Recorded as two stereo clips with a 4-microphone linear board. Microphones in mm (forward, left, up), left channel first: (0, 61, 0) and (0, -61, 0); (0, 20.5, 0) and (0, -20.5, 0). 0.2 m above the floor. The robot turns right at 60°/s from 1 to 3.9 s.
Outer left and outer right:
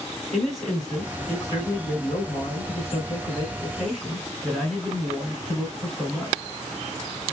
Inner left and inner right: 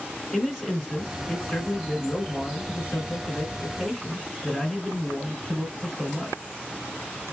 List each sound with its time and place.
0.3 s a man speaking: straight ahead, 1.8 m; by 6.4 s 175° left, 1.8 m